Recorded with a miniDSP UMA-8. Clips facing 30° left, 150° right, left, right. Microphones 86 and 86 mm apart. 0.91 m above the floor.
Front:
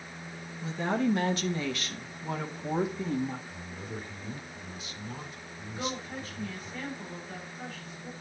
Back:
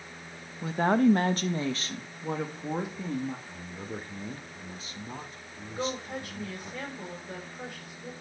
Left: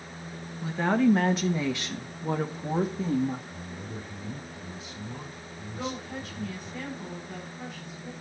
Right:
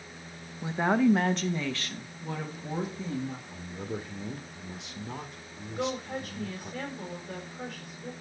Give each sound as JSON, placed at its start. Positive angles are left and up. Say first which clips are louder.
{"t": 0.6, "sound": "a woman speaking", "louder": "back 6 dB, left 1 dB", "azimuth_deg": -155, "distance_m": 1.0}
{"t": 3.5, "sound": "a man speaking", "louder": "back 1 dB, right 3 dB", "azimuth_deg": -95, "distance_m": 1.4}
{"t": 5.7, "sound": "a woman speaking", "louder": "back 3 dB, right 3 dB", "azimuth_deg": -120, "distance_m": 5.5}